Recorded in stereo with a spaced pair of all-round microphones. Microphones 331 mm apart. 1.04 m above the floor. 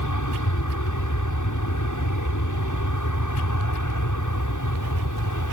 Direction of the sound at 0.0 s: 65° left (ahead or behind).